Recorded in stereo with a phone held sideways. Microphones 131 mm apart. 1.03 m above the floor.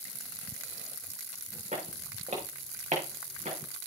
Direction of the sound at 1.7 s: 70° right (ahead or behind).